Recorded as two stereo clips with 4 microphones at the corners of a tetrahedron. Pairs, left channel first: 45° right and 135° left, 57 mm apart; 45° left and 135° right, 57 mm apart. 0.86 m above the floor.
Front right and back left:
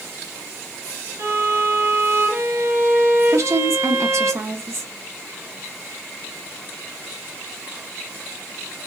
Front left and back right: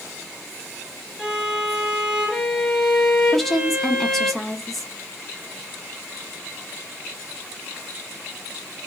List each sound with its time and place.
1.2 s a violin: 150° left, 1.1 m
3.3 s a woman speaking: 130° left, 0.8 m